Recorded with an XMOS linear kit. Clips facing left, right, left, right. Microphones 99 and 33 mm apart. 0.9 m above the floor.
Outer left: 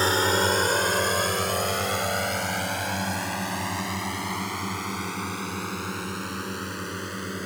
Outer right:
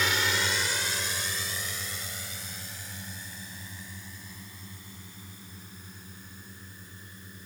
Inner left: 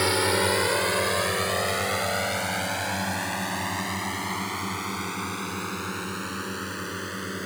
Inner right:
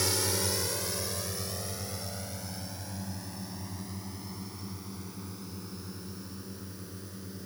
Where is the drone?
35° left (ahead or behind); by 7.5 s 85° left.